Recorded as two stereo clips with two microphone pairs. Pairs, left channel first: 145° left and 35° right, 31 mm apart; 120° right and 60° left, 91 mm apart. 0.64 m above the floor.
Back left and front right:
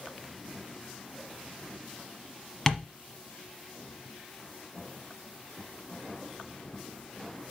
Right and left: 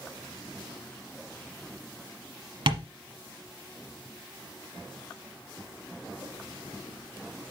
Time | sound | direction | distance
2.7 | tapping | 65° left | 1.1 m